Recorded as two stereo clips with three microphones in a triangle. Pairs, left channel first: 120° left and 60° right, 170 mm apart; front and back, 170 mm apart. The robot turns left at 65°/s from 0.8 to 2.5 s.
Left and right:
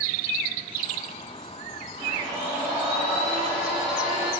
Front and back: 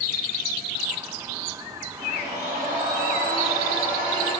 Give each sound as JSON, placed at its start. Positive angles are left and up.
{"t": 2.0, "sound": "a blender", "azimuth_deg": -110, "distance_m": 2.0}